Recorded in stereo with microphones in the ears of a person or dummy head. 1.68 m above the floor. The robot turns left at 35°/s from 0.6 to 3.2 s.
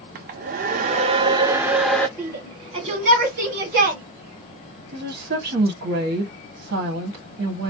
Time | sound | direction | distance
0.1 | a hair dryer | 135° right | 0.6 m
2.2 | a shout | 10° right (ahead or behind) | 2 m
4.9 | a woman speaking | 50° right (ahead or behind) | 1.7 m